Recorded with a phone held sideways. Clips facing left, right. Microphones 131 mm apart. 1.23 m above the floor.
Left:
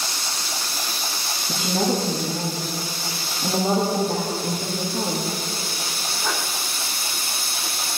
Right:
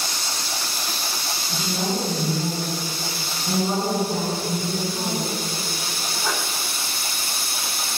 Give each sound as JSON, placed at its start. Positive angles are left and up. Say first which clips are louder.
{"t": 1.5, "sound": "a woman speaking", "louder": "left 4 dB", "side_deg": 80, "distance_m": 2.5}